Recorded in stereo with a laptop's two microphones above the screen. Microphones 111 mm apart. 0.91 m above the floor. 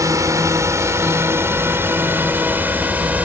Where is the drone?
30° right (ahead or behind); by 3.2 s 15° right (ahead or behind).